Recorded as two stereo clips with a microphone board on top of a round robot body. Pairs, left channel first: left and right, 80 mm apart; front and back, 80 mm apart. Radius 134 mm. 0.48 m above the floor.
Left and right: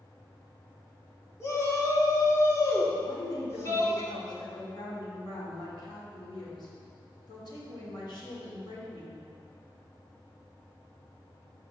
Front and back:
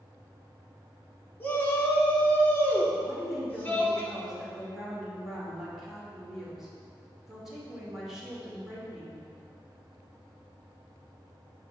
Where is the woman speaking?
95° left, 2.5 m.